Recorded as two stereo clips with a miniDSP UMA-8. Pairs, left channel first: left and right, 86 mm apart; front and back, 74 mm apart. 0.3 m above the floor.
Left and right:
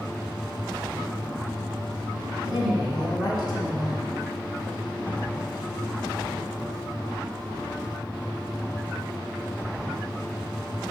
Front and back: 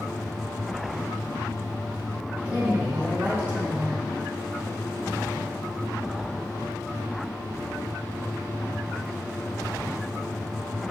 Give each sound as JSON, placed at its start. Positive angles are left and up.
{"t": 2.5, "sound": "a woman speaking", "azimuth_deg": 110, "distance_m": 2.5}